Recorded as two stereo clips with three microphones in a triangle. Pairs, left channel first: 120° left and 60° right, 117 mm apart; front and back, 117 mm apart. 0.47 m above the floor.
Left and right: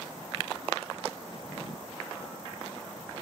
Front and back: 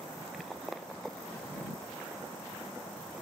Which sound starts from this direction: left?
A drawer, at 1.3 s.